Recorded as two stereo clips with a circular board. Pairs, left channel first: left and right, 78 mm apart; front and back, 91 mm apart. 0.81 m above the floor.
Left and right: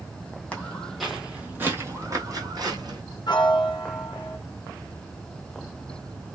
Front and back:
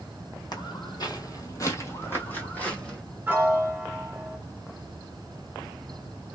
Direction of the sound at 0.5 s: 20° left.